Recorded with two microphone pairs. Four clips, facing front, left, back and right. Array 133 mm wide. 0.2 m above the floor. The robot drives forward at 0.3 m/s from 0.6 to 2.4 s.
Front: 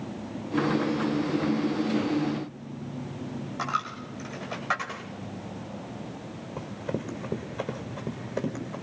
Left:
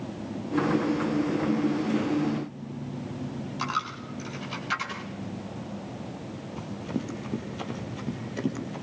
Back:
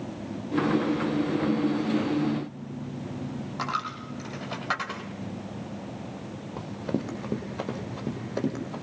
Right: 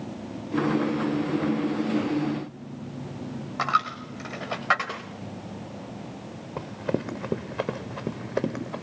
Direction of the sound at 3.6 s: 100° right.